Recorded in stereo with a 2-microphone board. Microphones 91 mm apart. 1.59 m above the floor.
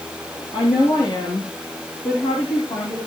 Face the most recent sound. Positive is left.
turn(degrees=90)